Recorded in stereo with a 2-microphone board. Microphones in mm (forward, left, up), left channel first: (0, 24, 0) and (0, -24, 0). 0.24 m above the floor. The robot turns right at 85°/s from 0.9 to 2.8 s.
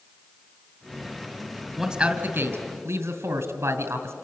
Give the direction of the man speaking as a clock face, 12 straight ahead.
6 o'clock.